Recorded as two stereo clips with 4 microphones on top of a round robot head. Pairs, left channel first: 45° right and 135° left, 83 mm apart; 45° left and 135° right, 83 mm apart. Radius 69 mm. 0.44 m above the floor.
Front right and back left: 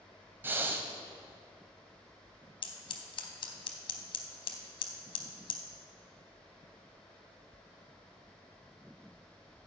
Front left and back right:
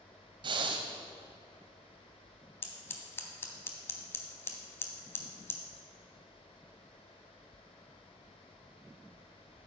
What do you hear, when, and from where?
0.4 s breathing: 160° right, 1.0 m
2.6 s scissors: 15° right, 1.0 m